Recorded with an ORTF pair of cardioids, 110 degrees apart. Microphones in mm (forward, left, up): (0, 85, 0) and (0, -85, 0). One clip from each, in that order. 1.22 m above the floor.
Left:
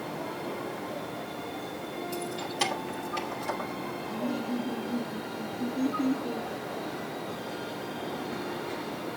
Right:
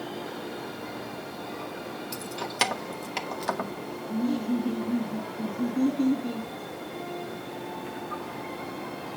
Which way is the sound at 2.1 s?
55° right.